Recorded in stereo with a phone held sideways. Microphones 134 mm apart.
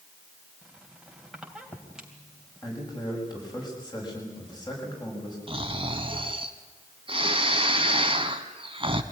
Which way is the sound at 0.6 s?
5° right (ahead or behind).